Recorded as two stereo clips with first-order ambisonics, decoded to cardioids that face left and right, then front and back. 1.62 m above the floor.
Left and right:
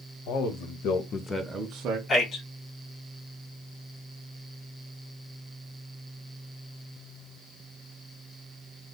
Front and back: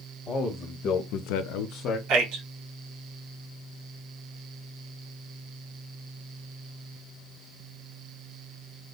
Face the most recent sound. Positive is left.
turn(degrees=160)